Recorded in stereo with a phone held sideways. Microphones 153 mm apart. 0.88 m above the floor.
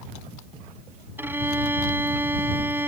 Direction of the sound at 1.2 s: 15° right (ahead or behind).